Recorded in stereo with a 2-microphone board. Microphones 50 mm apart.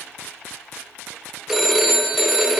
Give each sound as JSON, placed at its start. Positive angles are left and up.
{"t": 1.5, "sound": "a phone ringing", "side_deg": -5, "distance_m": 0.8}